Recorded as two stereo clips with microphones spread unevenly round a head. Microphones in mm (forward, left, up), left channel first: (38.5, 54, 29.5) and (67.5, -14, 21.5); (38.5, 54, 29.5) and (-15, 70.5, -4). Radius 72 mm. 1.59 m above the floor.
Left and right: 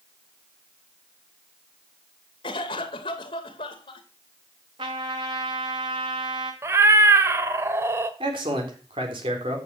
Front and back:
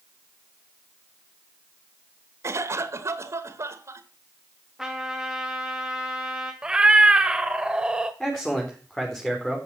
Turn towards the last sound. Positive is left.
turn(degrees=-100)